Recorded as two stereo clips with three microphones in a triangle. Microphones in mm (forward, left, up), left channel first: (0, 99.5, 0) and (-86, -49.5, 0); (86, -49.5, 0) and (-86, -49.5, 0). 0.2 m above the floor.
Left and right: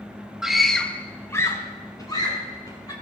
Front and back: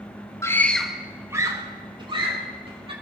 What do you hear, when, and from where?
0.4 s a scream: 40° right, 1.0 m; by 2.9 s 125° left, 2.5 m